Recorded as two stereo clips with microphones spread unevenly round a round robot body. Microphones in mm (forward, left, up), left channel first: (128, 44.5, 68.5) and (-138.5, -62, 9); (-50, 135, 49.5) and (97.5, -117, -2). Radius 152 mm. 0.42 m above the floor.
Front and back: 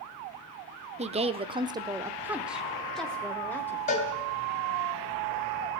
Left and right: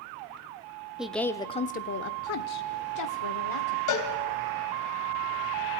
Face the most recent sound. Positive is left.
turn(degrees=90)